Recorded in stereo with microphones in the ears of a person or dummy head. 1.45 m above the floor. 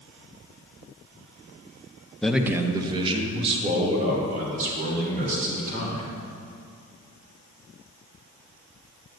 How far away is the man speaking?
About 0.6 m.